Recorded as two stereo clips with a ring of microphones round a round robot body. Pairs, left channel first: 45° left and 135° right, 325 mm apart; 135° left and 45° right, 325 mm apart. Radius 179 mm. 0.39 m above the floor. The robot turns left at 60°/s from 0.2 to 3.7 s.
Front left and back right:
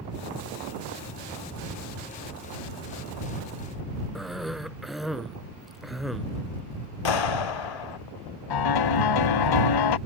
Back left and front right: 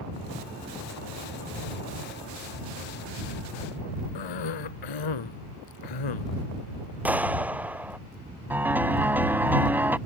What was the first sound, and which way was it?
A cough, 135° left.